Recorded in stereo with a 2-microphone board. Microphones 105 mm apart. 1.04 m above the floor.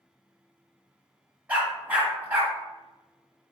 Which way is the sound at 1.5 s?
15° right (ahead or behind).